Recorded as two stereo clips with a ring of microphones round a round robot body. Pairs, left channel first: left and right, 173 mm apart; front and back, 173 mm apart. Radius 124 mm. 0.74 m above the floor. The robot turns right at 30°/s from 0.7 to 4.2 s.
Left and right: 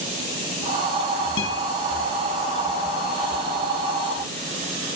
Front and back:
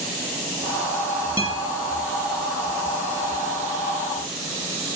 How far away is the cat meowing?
No cat meowing in this recording.